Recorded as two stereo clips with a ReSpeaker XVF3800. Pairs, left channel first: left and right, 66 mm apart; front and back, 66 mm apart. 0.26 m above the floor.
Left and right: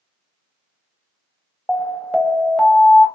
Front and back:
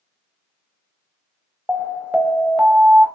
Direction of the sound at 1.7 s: 150° left.